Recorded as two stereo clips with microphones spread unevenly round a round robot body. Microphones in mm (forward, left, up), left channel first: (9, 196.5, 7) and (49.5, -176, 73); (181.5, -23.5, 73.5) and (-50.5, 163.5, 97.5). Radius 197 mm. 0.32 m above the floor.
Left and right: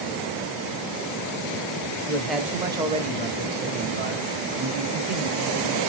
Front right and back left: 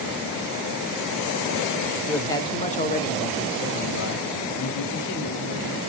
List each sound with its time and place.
2.1 s a man speaking: 40° left, 1.1 m; by 5.8 s 35° right, 2.5 m